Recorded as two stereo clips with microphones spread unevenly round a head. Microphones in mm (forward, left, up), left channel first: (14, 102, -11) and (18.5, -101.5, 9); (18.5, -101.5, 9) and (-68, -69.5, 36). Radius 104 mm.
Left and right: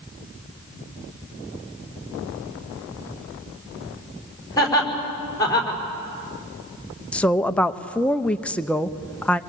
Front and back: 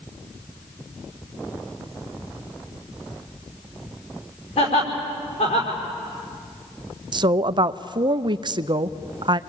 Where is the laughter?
20° left, 5.5 m.